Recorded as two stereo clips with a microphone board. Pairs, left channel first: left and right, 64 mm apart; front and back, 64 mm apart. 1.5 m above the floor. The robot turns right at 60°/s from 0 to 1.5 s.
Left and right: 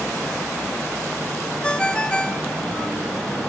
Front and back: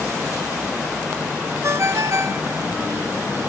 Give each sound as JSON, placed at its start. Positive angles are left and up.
{"t": 1.6, "sound": "a ringtone", "azimuth_deg": 160, "distance_m": 0.8}